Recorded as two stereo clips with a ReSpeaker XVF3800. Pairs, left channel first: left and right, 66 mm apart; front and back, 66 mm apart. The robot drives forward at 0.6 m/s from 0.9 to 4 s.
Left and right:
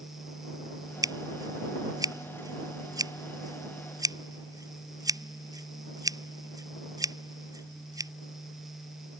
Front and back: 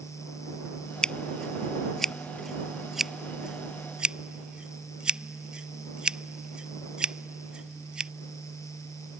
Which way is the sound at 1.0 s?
80° right.